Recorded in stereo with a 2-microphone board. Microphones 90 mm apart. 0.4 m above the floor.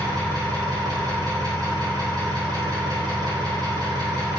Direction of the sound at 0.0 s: 45° right (ahead or behind).